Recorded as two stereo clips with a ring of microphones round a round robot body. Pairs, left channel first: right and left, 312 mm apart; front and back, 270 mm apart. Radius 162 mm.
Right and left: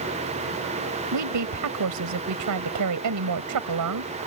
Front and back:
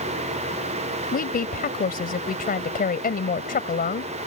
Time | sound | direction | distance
1.1 | a woman speaking | 55° left | ?